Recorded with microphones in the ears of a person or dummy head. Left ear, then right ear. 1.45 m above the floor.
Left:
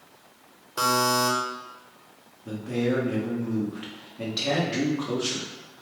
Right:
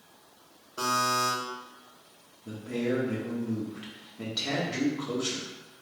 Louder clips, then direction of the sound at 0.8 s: Left 4 dB; 50° left (ahead or behind).